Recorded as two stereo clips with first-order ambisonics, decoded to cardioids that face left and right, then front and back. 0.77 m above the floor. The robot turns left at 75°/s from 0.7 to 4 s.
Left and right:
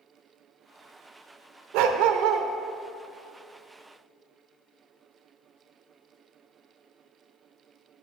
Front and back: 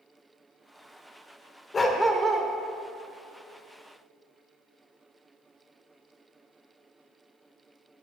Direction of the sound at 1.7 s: 70° right.